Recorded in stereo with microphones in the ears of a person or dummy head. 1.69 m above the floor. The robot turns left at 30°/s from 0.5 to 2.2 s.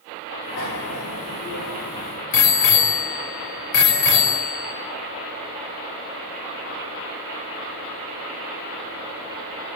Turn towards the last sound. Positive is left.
turn(degrees=65)  # may be behind; listen again after turning